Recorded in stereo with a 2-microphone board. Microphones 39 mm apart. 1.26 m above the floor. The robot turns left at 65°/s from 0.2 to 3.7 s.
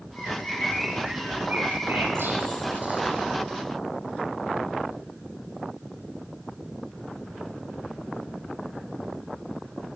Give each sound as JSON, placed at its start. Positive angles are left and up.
{"t": 0.2, "sound": "a bird", "azimuth_deg": 45, "distance_m": 7.5}